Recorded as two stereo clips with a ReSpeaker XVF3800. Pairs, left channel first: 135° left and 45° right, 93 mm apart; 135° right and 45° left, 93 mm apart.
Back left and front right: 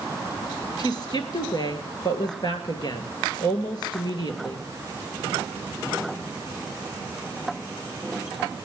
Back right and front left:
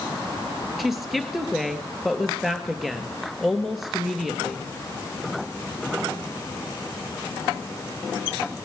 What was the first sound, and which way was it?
A woman speaking, 130° left.